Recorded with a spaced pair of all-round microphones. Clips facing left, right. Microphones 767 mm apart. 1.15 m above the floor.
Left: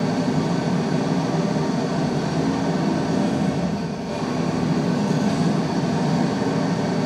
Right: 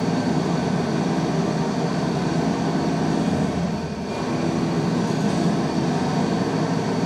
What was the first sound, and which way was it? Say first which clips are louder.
An engine running: even; 70° right (ahead or behind).